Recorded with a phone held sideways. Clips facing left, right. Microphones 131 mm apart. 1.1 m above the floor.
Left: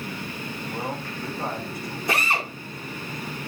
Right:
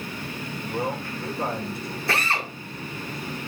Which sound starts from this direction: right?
A man speaking, at 0.7 s.